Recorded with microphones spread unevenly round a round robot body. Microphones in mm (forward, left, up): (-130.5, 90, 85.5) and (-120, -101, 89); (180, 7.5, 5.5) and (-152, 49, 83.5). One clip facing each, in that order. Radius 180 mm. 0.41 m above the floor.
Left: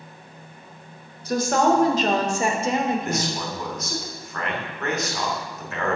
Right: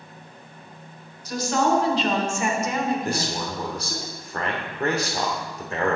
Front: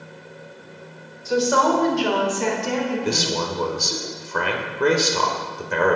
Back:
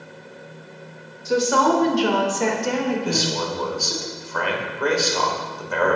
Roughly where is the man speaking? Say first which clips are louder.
Even, even; ahead right.